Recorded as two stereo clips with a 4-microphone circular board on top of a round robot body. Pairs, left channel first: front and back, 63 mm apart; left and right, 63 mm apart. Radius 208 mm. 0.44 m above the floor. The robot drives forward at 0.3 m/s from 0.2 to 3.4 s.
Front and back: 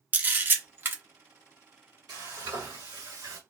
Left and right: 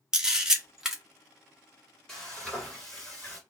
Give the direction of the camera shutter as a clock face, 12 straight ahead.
5 o'clock.